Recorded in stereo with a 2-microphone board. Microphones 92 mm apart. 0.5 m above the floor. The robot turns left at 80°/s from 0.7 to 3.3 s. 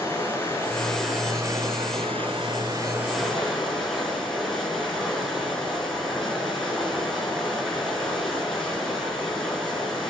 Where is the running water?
25° left, 6.5 m; by 10.1 s 175° left, 6.5 m.